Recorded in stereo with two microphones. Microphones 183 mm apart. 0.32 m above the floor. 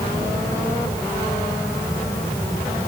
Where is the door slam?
No door slam in this recording.